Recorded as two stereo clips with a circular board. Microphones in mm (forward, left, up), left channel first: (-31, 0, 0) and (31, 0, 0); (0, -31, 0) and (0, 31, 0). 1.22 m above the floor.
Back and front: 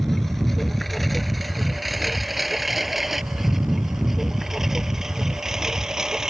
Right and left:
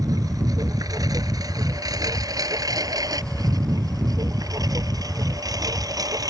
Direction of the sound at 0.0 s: 95° left.